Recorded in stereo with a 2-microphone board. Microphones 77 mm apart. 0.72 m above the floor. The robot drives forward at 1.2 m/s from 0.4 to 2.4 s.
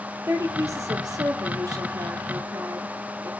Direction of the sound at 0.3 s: 40° right (ahead or behind).